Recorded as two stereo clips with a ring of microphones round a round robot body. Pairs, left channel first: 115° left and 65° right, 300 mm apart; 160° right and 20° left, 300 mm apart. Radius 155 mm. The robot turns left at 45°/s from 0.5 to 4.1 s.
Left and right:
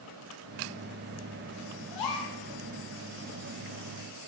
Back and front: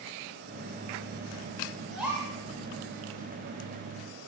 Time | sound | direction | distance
1.9 | a gasp | 115° left | 1.2 m